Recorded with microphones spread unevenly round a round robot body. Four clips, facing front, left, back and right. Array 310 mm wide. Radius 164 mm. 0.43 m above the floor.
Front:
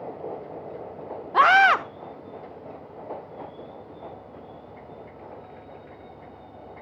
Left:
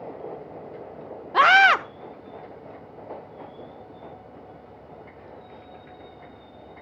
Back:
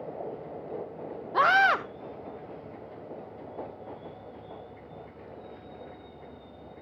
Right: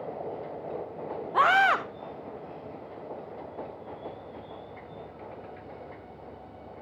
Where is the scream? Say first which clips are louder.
Left 5 dB, front 5 dB; 45° left, 0.9 m.